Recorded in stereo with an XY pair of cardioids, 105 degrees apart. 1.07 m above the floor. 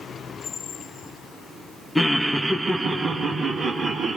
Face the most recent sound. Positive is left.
turn(degrees=-50)